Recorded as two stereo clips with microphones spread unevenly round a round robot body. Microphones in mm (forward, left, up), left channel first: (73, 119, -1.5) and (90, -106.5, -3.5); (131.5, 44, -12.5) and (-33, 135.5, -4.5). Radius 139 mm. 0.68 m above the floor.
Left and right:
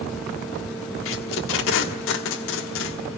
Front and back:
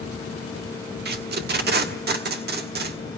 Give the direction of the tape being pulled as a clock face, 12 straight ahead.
8 o'clock.